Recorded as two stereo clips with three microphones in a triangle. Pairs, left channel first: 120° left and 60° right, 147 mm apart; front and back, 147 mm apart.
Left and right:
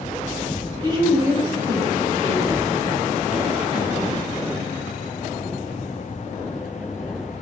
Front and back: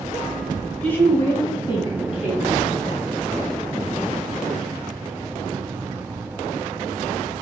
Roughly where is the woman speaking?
Right.